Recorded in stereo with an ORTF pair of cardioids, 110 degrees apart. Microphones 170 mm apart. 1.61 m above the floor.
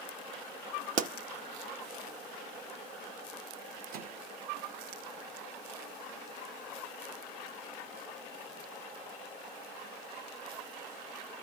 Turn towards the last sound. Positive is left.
turn(degrees=-65)